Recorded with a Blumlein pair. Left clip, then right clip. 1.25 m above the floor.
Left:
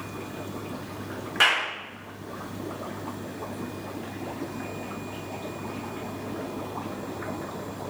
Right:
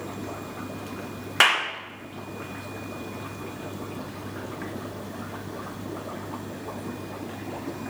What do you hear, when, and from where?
1.4 s a clap: 65° right, 1.0 m